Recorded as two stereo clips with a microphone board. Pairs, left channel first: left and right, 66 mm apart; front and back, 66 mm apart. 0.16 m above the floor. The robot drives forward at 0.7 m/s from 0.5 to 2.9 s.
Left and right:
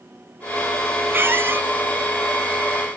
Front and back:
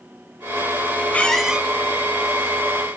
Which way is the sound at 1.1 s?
55° right.